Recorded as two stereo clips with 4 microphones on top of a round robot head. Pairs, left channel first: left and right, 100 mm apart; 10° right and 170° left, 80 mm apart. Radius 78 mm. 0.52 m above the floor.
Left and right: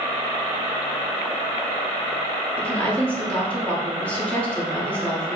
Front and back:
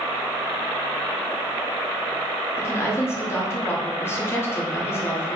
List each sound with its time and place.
2.6 s a woman speaking: 20° left, 1.2 m